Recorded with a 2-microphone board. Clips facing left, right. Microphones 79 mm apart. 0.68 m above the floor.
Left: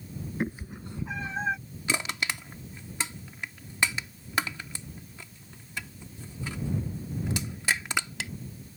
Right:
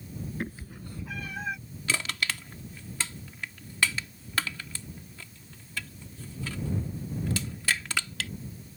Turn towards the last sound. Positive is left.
turn(degrees=20)  # may be behind; listen again after turning